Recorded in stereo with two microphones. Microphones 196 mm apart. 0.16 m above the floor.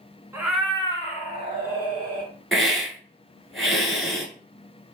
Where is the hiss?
Centre (ahead or behind), 0.7 m.